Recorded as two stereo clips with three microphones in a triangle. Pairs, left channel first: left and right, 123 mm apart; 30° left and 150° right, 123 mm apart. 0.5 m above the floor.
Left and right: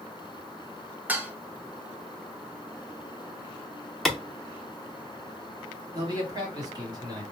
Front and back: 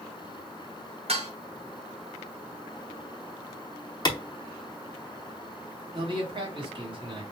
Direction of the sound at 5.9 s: 130° right.